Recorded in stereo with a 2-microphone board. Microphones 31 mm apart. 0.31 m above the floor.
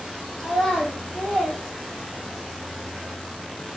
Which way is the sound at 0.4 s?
15° left (ahead or behind).